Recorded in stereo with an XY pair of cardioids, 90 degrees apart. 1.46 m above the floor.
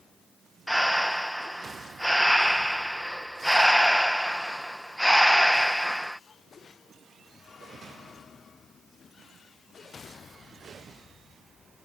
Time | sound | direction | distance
0.7 | breathing | 5° left | ?